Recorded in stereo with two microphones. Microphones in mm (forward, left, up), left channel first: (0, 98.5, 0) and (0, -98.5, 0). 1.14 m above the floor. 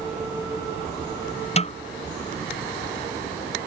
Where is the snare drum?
35° left (ahead or behind).